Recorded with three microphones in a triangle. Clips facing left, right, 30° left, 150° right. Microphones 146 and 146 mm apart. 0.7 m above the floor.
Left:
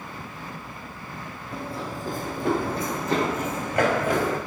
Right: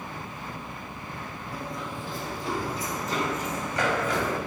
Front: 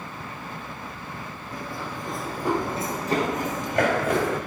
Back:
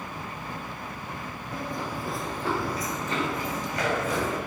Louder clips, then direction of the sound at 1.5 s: Left 3 dB, back 2 dB; 155° left.